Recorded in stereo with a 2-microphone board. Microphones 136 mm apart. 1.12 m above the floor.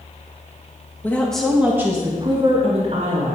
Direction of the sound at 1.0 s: 15° left (ahead or behind).